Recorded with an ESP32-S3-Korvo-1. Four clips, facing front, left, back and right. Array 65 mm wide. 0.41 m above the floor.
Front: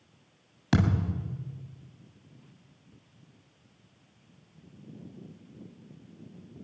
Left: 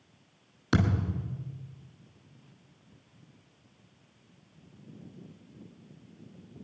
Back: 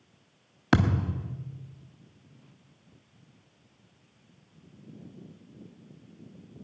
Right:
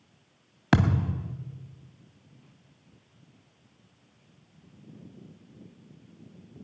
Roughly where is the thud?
Behind right.